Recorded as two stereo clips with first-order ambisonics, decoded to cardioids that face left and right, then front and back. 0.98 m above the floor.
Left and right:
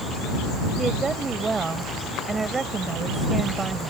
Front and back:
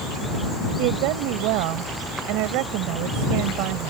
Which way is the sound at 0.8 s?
165° right.